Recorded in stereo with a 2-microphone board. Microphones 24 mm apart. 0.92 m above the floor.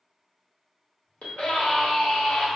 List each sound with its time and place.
1.2 s a scream: 75° left (ahead or behind), 1.0 m